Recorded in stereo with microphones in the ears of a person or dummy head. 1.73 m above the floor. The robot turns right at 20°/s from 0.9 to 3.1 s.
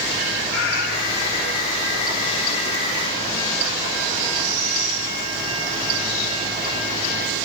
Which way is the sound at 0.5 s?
75° left (ahead or behind).